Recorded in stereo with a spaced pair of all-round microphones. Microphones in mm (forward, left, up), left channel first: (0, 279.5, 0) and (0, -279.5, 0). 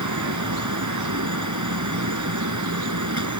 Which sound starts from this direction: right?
A fan, at 0.0 s.